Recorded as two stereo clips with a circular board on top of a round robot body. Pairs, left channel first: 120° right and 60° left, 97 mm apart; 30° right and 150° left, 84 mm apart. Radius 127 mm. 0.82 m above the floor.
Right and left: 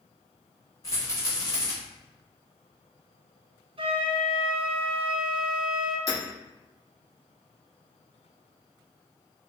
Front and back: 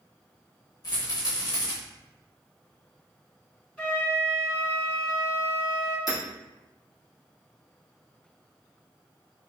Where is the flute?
45° left, 0.9 m.